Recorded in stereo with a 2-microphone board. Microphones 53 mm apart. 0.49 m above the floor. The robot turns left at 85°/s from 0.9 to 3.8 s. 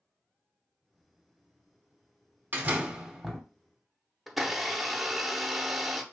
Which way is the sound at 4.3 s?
Centre (ahead or behind).